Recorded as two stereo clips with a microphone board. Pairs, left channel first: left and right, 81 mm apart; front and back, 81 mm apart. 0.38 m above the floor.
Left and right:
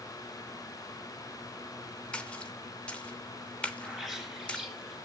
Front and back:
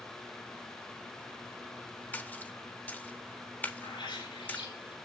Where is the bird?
5° left, 5 m.